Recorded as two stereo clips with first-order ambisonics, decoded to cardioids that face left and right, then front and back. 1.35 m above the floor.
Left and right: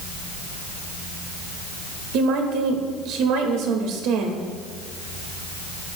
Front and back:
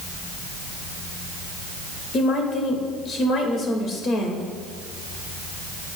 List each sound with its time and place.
2.1 s a woman speaking: 60° right, 2.0 m